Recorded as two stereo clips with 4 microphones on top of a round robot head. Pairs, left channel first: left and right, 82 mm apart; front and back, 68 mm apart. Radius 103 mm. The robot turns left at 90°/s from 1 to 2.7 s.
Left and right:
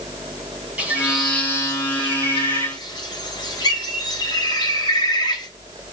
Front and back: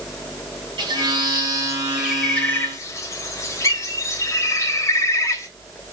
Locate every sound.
0.8 s a bird: 165° right, 3.5 m; by 5.5 s 40° left, 3.5 m